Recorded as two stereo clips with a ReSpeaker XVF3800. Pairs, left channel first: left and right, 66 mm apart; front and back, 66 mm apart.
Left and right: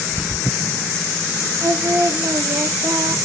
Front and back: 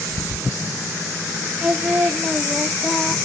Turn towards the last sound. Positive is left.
turn(degrees=-100)